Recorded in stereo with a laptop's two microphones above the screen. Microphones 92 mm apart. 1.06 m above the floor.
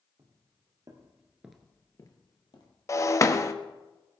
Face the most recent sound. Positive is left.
turn(degrees=35)  # may be behind; listen again after turning